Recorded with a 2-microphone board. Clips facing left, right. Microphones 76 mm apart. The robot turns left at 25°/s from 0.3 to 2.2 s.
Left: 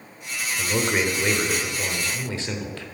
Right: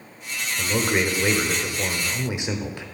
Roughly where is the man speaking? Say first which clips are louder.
Right 1 dB; centre.